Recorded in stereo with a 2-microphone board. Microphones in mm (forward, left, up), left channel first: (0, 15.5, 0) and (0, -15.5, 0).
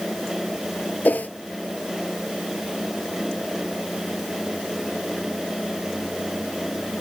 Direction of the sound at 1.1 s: 65° left (ahead or behind).